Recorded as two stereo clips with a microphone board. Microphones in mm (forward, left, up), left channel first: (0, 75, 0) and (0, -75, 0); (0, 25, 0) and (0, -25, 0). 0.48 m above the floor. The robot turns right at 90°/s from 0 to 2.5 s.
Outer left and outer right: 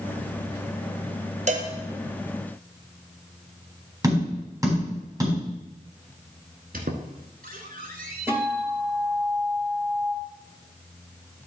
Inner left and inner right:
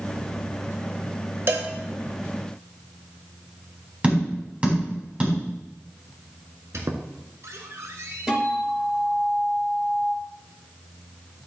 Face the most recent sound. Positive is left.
turn(degrees=-15)  # may be behind; listen again after turning